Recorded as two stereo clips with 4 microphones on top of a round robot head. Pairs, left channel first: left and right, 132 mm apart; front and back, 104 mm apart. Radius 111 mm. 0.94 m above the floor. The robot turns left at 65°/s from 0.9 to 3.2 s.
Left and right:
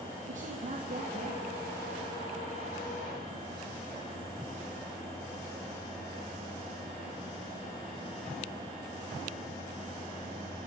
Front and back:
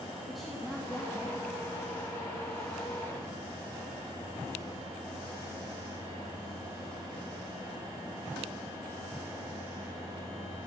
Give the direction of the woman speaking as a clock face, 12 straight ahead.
3 o'clock.